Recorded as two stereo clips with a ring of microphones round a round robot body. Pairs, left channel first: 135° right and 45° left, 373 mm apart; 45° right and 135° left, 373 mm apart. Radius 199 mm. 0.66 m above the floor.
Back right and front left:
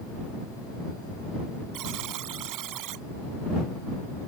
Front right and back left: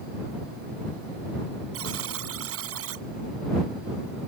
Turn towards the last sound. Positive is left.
turn(degrees=80)